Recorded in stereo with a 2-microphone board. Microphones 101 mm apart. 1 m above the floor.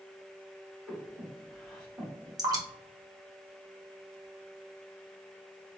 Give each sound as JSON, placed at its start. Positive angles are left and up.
{"t": 0.9, "sound": "breathing", "side_deg": 5, "distance_m": 1.6}
{"t": 2.4, "sound": "dripping", "side_deg": -40, "distance_m": 1.0}